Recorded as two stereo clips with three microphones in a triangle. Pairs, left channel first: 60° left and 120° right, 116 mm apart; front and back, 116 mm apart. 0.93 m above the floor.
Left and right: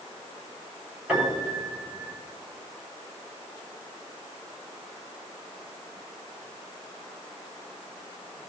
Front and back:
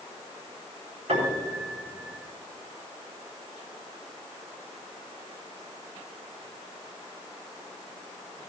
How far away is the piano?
About 5 m.